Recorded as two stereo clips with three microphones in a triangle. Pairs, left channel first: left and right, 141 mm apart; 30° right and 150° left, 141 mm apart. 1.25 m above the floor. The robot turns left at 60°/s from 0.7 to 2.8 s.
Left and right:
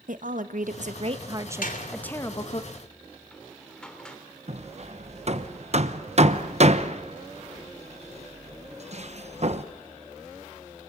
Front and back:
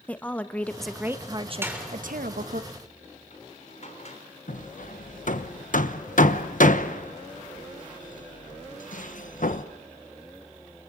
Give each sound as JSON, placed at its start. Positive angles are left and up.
{"t": 0.1, "sound": "a woman speaking", "azimuth_deg": -110, "distance_m": 1.2}
{"t": 1.6, "sound": "a door slam", "azimuth_deg": 80, "distance_m": 3.5}
{"t": 4.5, "sound": "hammering", "azimuth_deg": -50, "distance_m": 1.0}